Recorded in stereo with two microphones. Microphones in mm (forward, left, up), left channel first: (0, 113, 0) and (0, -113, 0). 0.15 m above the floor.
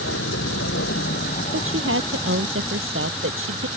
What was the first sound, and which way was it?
A vehicle, 65° left (ahead or behind).